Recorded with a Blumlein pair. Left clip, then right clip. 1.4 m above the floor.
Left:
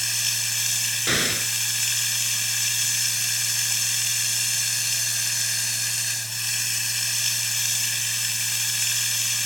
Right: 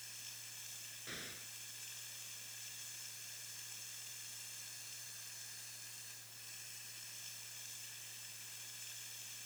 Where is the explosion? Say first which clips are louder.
Left 25 dB; 40° left.